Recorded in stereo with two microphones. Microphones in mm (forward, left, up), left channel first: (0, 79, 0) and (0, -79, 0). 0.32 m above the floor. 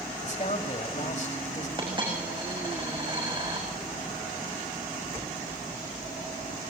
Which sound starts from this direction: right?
A dropped coin, at 1.8 s.